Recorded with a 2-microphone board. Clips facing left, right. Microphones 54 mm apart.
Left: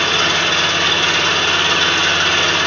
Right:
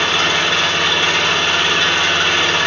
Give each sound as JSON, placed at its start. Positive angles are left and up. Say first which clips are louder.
{"t": 0.0, "sound": "an engine running", "louder": "even", "side_deg": -15, "distance_m": 1.4}